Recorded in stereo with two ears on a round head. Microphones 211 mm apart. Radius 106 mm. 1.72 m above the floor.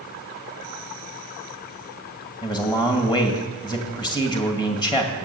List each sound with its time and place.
2.4 s a man speaking: 20° left (ahead or behind), 2 m